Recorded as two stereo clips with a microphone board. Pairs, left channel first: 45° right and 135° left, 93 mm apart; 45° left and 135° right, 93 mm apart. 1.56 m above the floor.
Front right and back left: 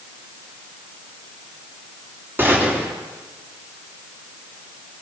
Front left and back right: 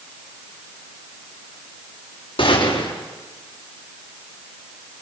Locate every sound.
2.4 s a gunshot: 65° left, 4 m